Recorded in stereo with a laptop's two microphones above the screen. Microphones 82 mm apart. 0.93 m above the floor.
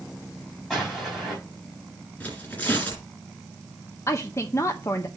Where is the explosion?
5° right (ahead or behind), 4 m.